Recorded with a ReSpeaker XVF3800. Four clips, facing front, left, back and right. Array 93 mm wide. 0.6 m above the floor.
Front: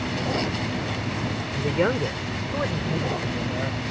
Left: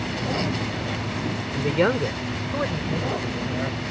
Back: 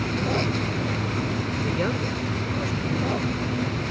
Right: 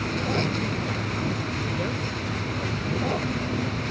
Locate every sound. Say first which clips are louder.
1.5 s a man speaking: left 7 dB, front 6 dB; 70° left; by 3.8 s 45° left